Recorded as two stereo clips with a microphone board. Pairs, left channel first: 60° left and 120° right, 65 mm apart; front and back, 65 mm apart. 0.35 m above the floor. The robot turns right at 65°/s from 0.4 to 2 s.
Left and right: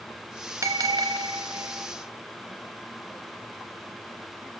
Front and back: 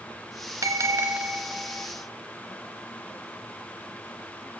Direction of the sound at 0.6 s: 155° right.